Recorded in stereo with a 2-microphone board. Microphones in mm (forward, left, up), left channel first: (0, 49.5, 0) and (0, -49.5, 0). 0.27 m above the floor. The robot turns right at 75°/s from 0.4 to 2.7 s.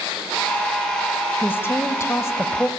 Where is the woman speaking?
20° left (ahead or behind), 1.0 m.